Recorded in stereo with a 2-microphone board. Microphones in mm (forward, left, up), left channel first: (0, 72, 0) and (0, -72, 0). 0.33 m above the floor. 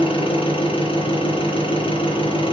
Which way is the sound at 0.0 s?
40° left (ahead or behind).